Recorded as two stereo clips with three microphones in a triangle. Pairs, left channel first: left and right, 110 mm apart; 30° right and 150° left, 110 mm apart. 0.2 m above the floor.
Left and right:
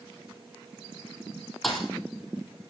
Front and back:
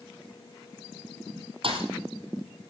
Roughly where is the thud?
Behind.